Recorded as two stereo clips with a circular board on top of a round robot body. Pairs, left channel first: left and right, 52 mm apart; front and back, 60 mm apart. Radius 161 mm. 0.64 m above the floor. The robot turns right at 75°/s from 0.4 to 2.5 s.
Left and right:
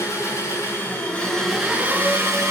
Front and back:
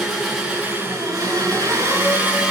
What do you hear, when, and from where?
0.0 s an engine running: 95° left, 5.5 m; by 2.5 s 105° right, 5.5 m